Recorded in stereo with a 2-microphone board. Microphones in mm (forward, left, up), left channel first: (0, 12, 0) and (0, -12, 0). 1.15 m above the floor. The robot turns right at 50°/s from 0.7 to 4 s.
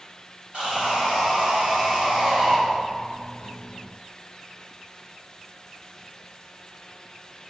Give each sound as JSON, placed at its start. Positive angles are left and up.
{"t": 0.5, "sound": "sawing", "azimuth_deg": -130, "distance_m": 2.5}